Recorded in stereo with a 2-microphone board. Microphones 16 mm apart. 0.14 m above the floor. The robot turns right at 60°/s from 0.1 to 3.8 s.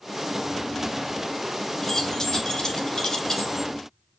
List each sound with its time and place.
1.8 s keys jangling: 35° left (ahead or behind), 1.1 m; by 3.7 s 10° left (ahead or behind), 1.1 m